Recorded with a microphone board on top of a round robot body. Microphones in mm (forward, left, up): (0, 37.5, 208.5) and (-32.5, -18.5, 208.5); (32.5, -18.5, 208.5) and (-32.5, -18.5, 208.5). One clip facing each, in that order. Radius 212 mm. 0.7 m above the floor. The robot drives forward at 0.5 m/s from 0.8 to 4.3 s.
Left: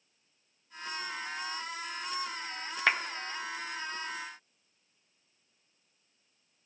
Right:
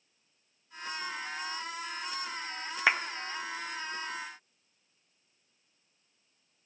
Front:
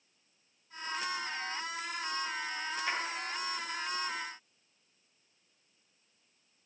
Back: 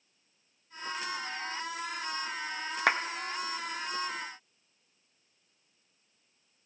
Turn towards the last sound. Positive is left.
turn(degrees=170)